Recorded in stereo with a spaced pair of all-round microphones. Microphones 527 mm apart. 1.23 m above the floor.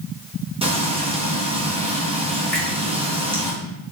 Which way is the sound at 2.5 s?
Centre (ahead or behind).